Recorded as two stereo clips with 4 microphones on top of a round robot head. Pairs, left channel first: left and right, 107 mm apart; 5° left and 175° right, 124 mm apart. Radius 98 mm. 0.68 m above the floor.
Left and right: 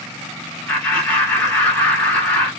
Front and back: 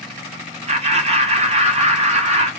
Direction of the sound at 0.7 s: 170° left.